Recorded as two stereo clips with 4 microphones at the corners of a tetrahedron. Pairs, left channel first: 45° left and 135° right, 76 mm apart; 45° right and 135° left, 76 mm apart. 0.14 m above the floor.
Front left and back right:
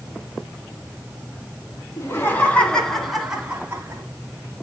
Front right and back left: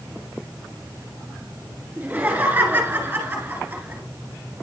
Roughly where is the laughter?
Left.